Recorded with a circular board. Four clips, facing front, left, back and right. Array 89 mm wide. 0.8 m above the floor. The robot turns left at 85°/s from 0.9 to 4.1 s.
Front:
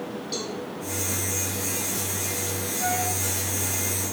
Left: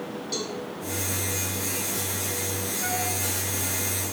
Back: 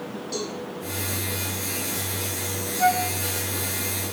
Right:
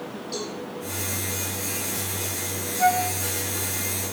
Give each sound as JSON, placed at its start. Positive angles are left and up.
{"t": 0.3, "sound": "a cowbell", "azimuth_deg": 80, "distance_m": 6.0}
{"t": 2.8, "sound": "a flute", "azimuth_deg": -125, "distance_m": 2.5}